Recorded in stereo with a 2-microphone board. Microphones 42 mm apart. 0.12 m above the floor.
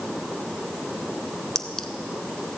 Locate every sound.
1.6 s a clink: 15° left (ahead or behind), 0.8 m